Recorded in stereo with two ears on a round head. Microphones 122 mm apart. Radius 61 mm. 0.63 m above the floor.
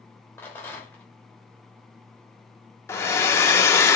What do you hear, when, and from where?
0.4 s a rattle: 15° left (ahead or behind), 1.2 m
2.9 s a hair dryer: 20° left (ahead or behind), 0.5 m